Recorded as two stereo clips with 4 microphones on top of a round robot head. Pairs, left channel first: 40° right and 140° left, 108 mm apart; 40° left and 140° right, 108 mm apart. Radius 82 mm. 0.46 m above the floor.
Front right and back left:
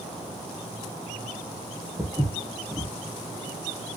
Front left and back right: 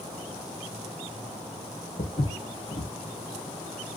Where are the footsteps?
60° left, 0.7 m.